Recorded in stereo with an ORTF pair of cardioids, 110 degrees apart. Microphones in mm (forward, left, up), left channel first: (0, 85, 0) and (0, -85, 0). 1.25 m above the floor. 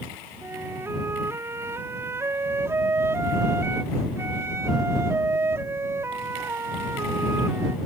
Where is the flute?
15° right.